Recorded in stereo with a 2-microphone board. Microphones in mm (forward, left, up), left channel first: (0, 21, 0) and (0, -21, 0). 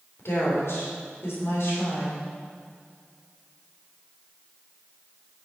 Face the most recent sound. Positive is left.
turn(degrees=75)  # may be behind; listen again after turning